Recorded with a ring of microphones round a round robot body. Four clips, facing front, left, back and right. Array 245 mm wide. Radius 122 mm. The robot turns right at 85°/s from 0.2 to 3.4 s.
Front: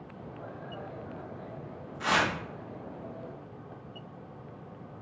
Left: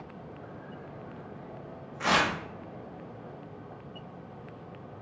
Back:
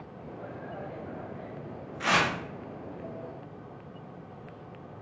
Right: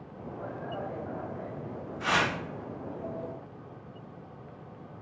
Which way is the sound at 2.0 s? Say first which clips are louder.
Left 2 dB, back 1 dB; 105° left.